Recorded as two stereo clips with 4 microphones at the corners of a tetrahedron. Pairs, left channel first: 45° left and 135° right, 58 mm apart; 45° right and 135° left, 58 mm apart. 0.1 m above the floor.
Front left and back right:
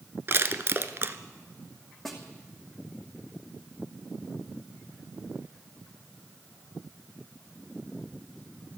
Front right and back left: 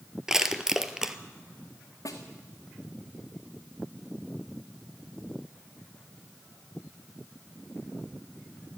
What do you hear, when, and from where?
0.3 s crushing: 150° right, 0.8 m
2.0 s a snare drum: 45° right, 2.5 m